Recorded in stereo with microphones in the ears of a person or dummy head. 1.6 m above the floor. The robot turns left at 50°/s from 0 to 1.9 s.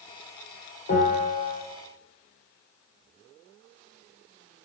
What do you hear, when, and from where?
0.9 s a bell: 110° left, 1.7 m; by 1.6 s 75° left, 1.7 m